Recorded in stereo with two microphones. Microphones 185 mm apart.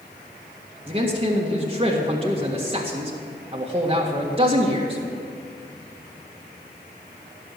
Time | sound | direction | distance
0.9 | a man speaking | 30° right (ahead or behind) | 1.8 m